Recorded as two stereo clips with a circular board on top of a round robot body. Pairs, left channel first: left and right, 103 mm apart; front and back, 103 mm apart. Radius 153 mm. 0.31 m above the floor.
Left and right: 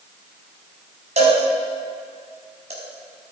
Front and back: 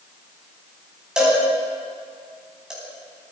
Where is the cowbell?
95° right, 4.5 m.